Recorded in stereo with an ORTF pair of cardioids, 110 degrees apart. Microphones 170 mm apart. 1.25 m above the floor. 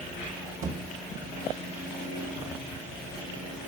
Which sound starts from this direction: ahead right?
A thud, at 0.6 s.